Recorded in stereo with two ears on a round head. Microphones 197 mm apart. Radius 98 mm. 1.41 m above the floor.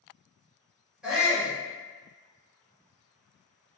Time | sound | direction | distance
1.0 | a shout | 5° right (ahead or behind) | 1.1 m